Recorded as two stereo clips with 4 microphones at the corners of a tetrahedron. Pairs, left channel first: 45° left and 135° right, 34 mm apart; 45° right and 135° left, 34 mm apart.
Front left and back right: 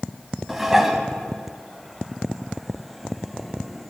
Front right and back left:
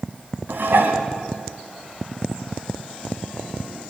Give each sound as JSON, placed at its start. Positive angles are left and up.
{"t": 0.5, "sound": "dishes clattering", "azimuth_deg": 145, "distance_m": 1.9}